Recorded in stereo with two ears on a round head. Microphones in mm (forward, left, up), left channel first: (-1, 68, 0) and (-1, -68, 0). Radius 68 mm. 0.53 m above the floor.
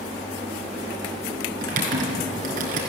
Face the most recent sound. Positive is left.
turn(degrees=-55)  # may be behind; listen again after turning